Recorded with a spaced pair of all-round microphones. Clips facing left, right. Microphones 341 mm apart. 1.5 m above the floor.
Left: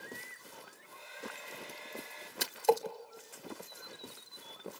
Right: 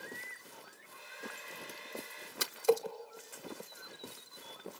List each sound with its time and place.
0.7 s a hair dryer: 20° right (ahead or behind), 4 m
2.4 s a splash: 10° right (ahead or behind), 1.3 m